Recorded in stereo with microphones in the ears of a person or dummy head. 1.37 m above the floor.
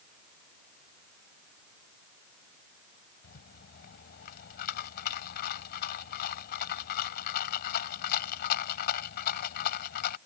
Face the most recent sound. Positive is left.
turn(degrees=55)  # may be behind; listen again after turning